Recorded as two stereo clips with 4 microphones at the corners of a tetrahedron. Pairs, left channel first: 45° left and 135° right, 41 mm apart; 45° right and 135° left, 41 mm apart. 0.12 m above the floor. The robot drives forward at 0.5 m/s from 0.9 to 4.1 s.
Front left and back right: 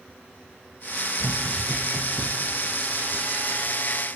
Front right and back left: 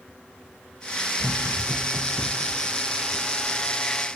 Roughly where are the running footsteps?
Behind.